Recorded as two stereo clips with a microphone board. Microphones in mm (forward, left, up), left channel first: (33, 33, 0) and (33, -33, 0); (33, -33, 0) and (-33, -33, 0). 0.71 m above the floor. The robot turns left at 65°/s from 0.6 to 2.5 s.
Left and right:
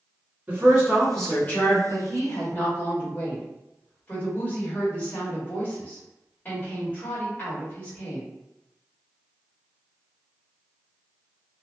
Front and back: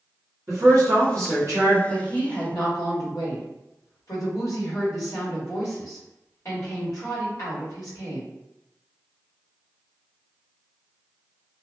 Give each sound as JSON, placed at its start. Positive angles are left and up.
{"t": 0.5, "sound": "a woman speaking", "azimuth_deg": -155, "distance_m": 1.5}
{"t": 1.9, "sound": "a woman speaking", "azimuth_deg": 70, "distance_m": 1.5}